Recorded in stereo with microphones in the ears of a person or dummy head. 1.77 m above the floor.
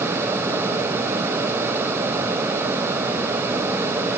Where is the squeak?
No squeak in this recording.